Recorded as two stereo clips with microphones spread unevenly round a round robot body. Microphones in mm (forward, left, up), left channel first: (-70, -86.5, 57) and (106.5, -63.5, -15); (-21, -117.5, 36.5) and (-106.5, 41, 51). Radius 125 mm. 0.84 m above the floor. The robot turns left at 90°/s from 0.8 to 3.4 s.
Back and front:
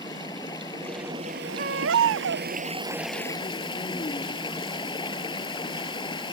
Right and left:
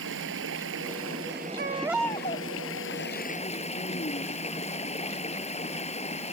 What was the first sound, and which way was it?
Running water, 120° left.